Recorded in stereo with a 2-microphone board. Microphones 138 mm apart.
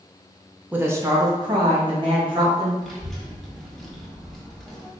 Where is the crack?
I don't hear a crack.